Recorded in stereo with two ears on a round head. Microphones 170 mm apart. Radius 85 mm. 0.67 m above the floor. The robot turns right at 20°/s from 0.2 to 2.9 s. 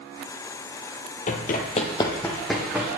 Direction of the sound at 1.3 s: 40° left (ahead or behind).